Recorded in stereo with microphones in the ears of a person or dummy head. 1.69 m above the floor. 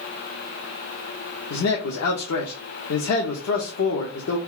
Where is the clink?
I don't hear a clink.